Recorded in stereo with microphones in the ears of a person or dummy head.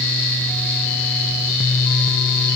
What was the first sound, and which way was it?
Only background noise.